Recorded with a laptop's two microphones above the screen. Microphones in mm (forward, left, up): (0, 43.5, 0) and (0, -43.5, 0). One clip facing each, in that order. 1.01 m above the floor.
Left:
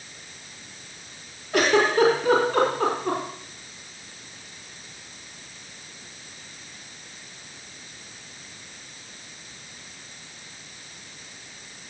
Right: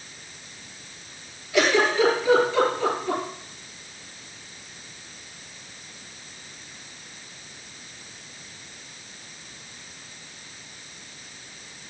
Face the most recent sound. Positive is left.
turn(degrees=45)  # may be behind; listen again after turning